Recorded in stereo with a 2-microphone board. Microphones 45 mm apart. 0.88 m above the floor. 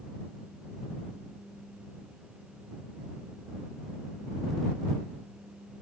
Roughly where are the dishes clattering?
I don't hear dishes clattering.